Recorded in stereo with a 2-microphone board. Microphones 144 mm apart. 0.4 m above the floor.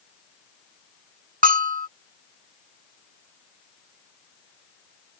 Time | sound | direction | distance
1.4 | a bell | 75° right (ahead or behind) | ?